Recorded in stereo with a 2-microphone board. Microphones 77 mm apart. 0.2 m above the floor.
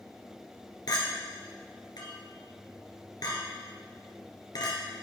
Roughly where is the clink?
Left.